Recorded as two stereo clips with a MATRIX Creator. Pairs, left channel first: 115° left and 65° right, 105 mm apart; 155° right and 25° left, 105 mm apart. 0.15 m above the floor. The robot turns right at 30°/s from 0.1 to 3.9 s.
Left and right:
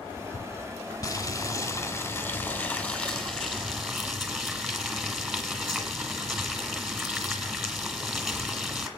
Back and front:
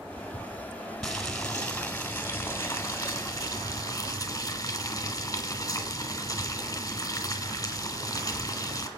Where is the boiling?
115° left, 1.8 m; by 8.9 s 155° right, 1.8 m.